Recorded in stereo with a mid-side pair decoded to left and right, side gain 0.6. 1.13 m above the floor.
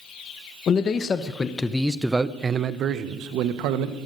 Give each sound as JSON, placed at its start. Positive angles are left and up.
{"t": 0.7, "sound": "a man speaking", "azimuth_deg": 40, "distance_m": 1.1}